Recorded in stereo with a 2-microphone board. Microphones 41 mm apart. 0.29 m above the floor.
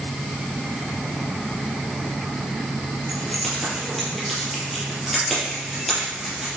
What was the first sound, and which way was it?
Keys jangling, 5° left (ahead or behind).